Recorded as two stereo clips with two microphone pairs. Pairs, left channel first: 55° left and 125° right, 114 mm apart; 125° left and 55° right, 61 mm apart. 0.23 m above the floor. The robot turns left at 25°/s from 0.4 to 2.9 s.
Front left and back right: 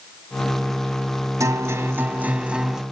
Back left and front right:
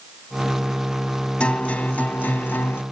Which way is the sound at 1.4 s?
170° right.